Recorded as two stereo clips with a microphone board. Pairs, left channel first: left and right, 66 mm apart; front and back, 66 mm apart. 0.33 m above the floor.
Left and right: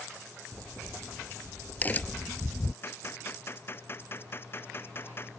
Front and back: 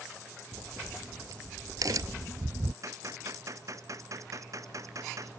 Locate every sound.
0.5 s a crack: 155° left
2.8 s a gunshot: 145° left